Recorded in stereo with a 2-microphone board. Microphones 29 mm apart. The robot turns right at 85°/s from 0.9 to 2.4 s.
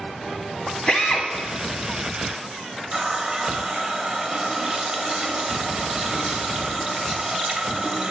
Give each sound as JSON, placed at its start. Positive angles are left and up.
{"t": 0.9, "sound": "a drill", "azimuth_deg": 45, "distance_m": 1.0}
{"t": 2.9, "sound": "a running tap", "side_deg": -30, "distance_m": 0.6}